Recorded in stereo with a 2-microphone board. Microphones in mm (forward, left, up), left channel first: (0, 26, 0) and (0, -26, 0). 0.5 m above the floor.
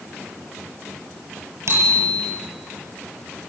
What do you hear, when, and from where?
1.7 s a bicycle bell: 65° right (ahead or behind), 8 m